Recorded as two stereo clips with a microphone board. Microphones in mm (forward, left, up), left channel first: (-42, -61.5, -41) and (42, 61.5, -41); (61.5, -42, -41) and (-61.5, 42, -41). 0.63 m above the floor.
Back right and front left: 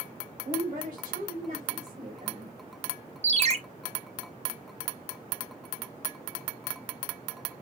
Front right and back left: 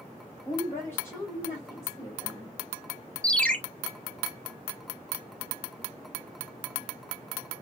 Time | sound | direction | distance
0.5 | a woman speaking | 40° left | 3.5 m
3.2 | a ringtone | 45° left | 0.8 m